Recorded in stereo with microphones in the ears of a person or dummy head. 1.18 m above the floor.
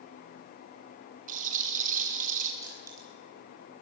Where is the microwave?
No microwave in this recording.